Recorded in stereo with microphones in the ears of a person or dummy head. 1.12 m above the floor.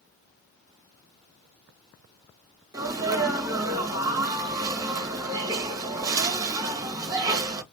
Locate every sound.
2.7 s a sneeze: 15° right (ahead or behind), 0.9 m